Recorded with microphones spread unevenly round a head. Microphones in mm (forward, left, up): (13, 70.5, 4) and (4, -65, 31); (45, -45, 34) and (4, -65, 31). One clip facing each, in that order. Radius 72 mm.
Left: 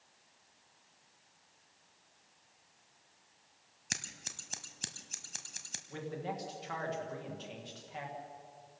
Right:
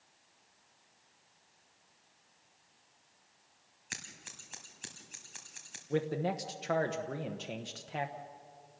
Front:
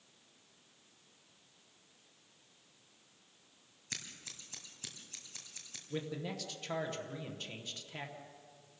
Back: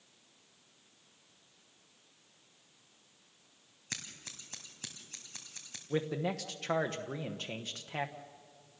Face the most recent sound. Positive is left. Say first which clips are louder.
# right 7 dB, back 7 dB
turn(degrees=-130)